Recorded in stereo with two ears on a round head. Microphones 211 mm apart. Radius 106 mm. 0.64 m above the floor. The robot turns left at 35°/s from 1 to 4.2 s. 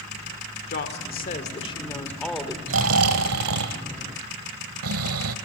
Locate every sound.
0.7 s a woman speaking: 45° left, 1.9 m; by 2.6 s 10° right, 1.9 m
2.7 s snoring: 55° right, 1.1 m; by 5.3 s 110° right, 1.1 m